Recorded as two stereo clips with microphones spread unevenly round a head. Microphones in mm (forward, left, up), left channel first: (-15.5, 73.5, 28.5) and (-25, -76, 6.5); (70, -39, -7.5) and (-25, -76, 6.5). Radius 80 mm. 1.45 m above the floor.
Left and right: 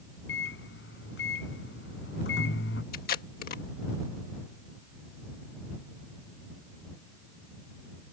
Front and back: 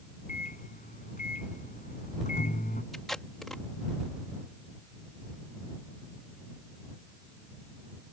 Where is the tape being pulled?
110° left.